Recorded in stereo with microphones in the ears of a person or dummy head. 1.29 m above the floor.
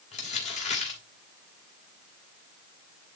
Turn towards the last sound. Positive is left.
turn(degrees=35)  # may be behind; listen again after turning